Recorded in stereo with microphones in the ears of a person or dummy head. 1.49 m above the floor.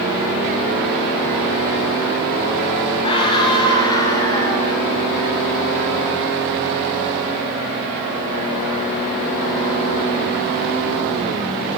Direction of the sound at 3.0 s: 30° left (ahead or behind).